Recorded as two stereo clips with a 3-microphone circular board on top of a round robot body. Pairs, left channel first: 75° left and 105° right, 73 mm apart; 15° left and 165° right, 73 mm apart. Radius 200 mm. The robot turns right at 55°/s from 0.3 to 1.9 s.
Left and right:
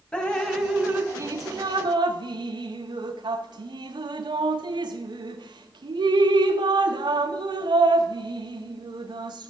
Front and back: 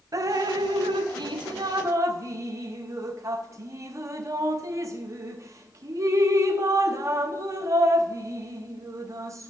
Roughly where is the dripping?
Behind left.